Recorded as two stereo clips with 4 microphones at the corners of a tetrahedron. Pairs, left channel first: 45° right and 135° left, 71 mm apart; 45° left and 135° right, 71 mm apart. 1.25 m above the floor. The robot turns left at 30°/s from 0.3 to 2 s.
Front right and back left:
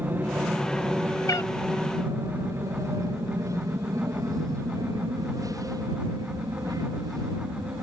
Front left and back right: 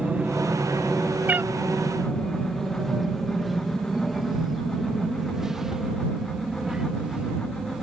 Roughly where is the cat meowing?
Right.